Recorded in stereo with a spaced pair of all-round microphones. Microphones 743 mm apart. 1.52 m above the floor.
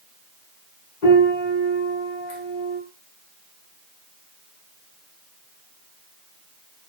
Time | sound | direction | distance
1.0 | a piano | 75° left (ahead or behind) | 1.2 m